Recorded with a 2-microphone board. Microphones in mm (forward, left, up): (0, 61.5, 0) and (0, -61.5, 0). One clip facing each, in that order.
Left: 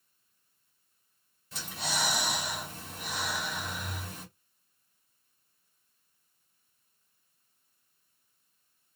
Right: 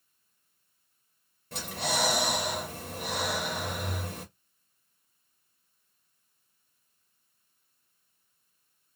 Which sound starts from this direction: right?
Breathing, at 1.5 s.